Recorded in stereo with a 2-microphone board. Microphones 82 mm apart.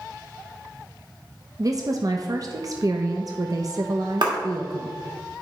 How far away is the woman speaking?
About 0.8 m.